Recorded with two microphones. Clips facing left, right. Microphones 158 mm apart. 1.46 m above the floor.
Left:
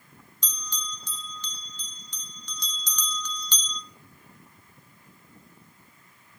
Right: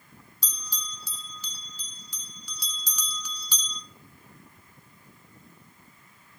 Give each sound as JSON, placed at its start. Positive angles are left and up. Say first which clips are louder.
{"t": 0.4, "sound": "a bell", "louder": "left 4 dB", "side_deg": -10, "distance_m": 1.2}